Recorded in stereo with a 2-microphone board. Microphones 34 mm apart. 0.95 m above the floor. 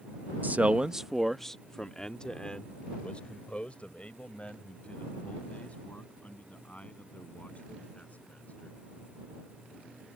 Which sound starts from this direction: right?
A man speaking, at 0.4 s.